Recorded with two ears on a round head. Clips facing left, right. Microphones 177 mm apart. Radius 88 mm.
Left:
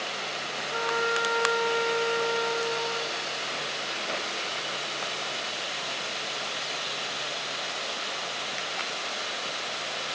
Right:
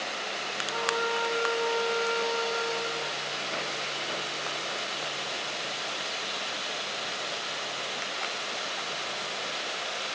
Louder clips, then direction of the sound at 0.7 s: Left 1 dB; 20° left (ahead or behind).